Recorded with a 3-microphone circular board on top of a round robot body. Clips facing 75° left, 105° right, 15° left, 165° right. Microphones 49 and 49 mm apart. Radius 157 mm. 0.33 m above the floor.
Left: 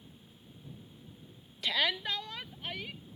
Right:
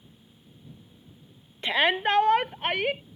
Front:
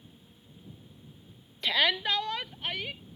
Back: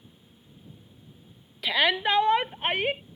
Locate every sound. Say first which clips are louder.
1.6 s a shout: right 8 dB, back 3 dB; 90° right; by 3.0 s 125° right